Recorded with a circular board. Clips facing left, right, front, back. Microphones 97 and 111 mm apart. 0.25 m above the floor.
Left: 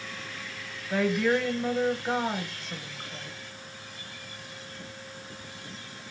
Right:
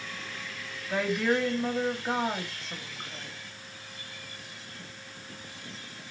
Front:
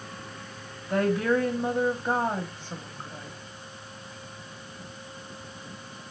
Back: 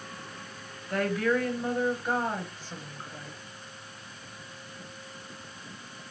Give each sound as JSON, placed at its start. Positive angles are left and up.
{"t": 0.9, "sound": "a woman speaking", "azimuth_deg": 0, "distance_m": 0.9}